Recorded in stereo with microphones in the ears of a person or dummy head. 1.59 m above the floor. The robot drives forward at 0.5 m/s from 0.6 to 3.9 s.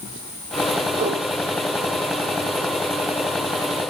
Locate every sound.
0.9 s a whoosh: 45° right (ahead or behind), 5 m